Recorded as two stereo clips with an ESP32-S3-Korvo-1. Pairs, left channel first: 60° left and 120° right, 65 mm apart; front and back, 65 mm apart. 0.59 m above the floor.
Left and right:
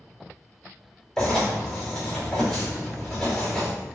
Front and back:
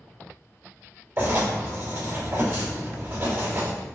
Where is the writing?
140° left, 2 m.